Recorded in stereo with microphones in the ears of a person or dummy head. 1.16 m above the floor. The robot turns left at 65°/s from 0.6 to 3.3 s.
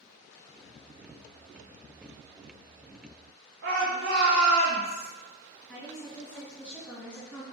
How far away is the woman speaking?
About 1.9 m.